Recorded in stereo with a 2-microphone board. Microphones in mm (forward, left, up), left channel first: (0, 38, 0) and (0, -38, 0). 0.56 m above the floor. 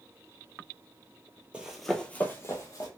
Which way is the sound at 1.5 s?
15° right (ahead or behind).